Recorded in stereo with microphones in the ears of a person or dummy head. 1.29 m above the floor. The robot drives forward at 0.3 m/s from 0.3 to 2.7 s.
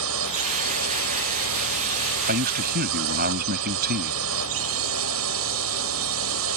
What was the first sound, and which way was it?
A drone, 75° right (ahead or behind).